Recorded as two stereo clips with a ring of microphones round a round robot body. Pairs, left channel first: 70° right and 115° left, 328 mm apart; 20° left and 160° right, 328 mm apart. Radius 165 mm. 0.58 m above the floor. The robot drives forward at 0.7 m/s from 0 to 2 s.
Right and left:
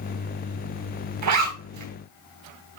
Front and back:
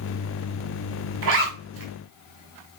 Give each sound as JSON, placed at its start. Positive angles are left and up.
{"t": 1.2, "sound": "a zipper", "azimuth_deg": 150, "distance_m": 4.5}